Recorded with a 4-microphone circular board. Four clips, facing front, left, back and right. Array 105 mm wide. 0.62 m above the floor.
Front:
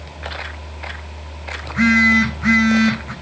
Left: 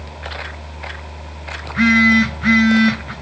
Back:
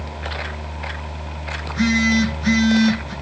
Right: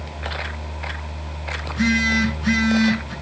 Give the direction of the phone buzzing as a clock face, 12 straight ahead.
10 o'clock.